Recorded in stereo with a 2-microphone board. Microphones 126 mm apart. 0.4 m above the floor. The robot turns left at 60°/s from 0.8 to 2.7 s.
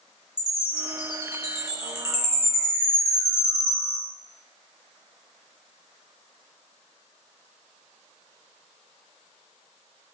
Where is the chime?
5° right (ahead or behind), 0.9 m; by 4.0 s 50° left (ahead or behind), 0.9 m.